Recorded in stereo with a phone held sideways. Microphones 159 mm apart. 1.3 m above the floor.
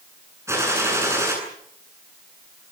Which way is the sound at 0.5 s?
15° right (ahead or behind).